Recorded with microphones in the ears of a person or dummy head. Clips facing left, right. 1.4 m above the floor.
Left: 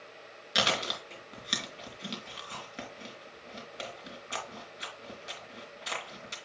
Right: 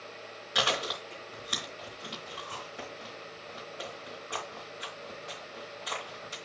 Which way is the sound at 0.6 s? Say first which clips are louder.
Even; 25° left (ahead or behind).